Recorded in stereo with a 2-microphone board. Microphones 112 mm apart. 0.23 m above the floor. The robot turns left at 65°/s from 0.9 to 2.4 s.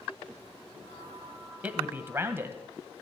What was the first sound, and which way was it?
A man speaking, 15° right (ahead or behind).